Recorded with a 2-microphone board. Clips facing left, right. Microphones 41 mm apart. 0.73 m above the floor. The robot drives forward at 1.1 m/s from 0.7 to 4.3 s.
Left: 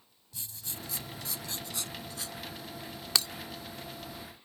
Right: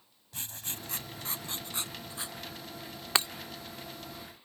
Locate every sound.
0.3 s writing: 55° right (ahead or behind); by 2.4 s 25° right (ahead or behind)
3.1 s breaking glass: 35° right (ahead or behind); by 3.3 s 30° right (ahead or behind)